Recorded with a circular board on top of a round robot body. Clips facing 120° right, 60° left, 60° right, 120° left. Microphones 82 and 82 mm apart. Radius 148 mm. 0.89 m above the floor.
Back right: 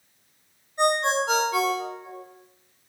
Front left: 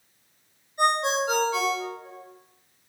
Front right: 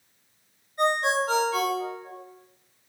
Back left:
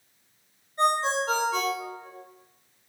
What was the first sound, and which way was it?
A ringtone, 175° right.